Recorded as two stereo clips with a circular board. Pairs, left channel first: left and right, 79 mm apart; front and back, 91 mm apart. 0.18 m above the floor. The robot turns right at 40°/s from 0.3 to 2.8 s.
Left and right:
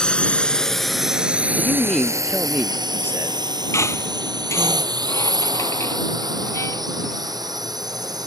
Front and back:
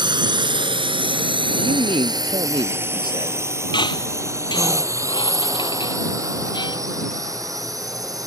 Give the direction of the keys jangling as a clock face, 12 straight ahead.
I don't hear keys jangling.